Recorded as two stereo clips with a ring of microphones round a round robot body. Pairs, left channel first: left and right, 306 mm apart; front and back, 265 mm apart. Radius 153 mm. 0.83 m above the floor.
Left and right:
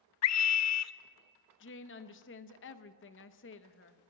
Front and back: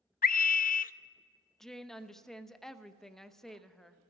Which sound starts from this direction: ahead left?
A scream, at 0.2 s.